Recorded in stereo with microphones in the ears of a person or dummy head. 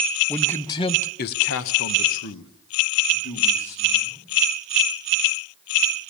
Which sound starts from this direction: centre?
A man speaking, at 0.3 s.